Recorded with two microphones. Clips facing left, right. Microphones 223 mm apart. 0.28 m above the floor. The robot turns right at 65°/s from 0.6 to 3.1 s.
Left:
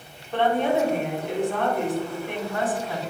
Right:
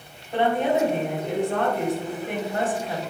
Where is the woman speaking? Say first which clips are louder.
Even; 165° right, 1.7 m; by 3.0 s 10° right, 1.7 m.